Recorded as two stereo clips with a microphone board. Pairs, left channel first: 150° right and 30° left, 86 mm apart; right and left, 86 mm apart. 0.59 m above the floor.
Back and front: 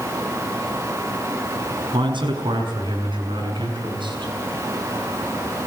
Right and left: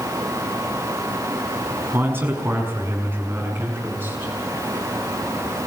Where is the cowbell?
I don't hear a cowbell.